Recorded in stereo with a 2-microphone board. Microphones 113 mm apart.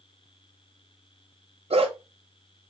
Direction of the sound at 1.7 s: 60° right (ahead or behind).